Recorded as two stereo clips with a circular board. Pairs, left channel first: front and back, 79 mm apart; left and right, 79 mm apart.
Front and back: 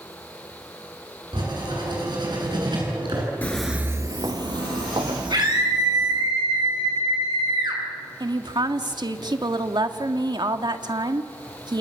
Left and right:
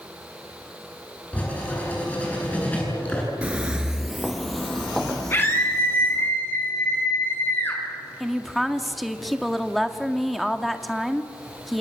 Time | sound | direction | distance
1.3 | writing | 160° left | 9.5 m
3.4 | footsteps | 35° right | 0.8 m
5.3 | a scream | 150° left | 8.5 m
8.2 | a woman speaking | straight behind | 1.8 m